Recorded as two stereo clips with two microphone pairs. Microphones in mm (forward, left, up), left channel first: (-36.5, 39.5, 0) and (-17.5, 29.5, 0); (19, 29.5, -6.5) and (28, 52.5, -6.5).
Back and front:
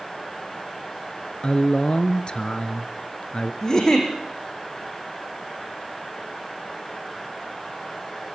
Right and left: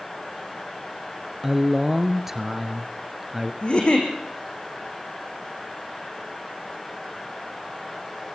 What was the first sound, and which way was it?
A man speaking, 140° left.